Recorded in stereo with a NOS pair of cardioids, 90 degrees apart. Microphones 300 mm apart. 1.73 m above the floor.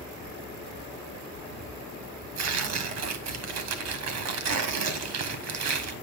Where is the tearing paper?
65° right, 1.5 m.